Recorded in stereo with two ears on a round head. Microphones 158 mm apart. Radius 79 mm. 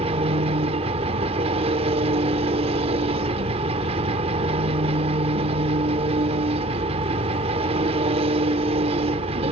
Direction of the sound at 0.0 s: 35° right (ahead or behind).